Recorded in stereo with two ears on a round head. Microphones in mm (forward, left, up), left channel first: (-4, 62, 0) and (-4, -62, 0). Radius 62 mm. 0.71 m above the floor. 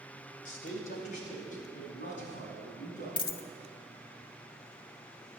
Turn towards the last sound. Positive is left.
turn(degrees=35)  # may be behind; listen again after turning